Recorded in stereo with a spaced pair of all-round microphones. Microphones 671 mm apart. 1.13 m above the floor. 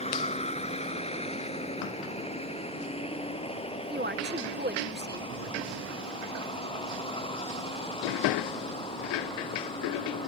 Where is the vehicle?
10° left (ahead or behind).